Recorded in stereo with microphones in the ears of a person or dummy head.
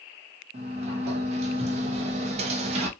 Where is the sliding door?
40° right (ahead or behind), 0.8 m.